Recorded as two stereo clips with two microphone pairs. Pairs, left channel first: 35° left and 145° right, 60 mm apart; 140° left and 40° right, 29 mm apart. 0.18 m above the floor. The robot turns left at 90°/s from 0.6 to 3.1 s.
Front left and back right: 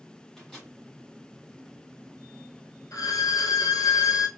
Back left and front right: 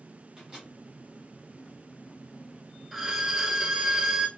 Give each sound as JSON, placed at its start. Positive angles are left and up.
{"t": 0.4, "sound": "a microwave", "azimuth_deg": -35, "distance_m": 1.4}
{"t": 2.9, "sound": "a violin", "azimuth_deg": 50, "distance_m": 0.7}